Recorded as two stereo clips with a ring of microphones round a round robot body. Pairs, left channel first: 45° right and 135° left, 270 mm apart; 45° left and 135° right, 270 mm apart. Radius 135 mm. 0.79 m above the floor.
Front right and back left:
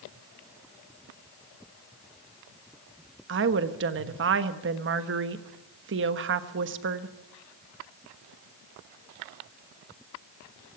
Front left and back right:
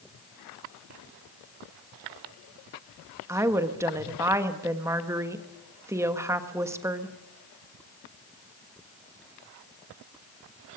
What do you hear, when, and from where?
3.3 s a woman speaking: 150° left, 1.2 m